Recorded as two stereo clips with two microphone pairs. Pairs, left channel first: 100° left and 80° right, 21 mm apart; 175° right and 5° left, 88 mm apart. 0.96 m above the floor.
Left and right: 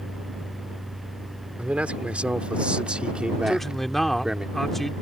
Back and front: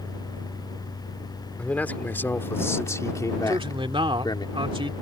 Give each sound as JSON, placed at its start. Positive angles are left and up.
{"t": 1.6, "sound": "a man speaking", "azimuth_deg": -100}
{"t": 3.5, "sound": "a man speaking", "azimuth_deg": 20}